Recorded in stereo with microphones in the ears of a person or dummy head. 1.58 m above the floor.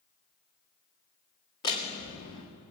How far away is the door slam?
About 2 m.